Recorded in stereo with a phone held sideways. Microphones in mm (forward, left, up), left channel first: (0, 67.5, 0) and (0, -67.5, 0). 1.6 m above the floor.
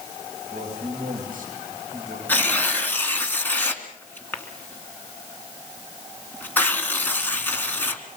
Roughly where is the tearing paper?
Centre.